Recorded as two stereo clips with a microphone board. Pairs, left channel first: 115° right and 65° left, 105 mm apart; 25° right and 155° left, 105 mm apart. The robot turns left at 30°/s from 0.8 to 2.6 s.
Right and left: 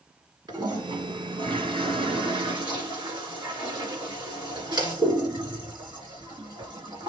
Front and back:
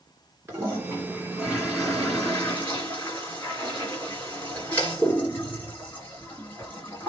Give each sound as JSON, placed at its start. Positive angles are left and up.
{"t": 0.5, "sound": "a toilet flushing", "azimuth_deg": 100, "distance_m": 2.5}